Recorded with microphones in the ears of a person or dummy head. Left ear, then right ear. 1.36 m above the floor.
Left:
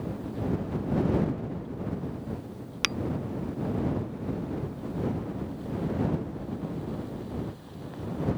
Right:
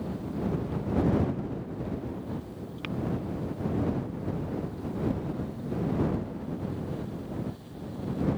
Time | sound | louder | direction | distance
2.8 | tapping | left 10 dB | 75° left (ahead or behind) | ?